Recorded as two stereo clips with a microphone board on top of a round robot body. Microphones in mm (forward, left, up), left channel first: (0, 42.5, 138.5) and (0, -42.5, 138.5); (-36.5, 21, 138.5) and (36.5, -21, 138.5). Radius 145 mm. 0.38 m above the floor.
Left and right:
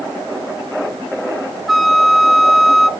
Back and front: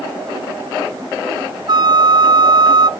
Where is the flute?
Straight ahead, 0.8 m.